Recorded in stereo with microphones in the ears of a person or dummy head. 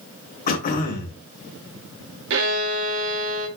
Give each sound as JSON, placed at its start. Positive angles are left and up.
{"t": 0.5, "sound": "throat clearing", "side_deg": 40, "distance_m": 2.5}
{"t": 2.3, "sound": "a violin", "side_deg": -60, "distance_m": 3.5}